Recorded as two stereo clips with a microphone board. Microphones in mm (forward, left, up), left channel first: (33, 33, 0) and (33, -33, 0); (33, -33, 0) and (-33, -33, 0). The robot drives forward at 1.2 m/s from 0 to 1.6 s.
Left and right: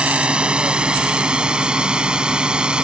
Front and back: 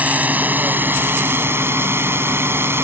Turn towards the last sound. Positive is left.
turn(degrees=-160)